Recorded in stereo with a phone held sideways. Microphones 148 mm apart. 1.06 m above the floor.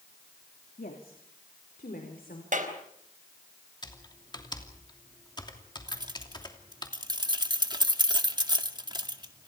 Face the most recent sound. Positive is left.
turn(degrees=-30)  # may be behind; listen again after turning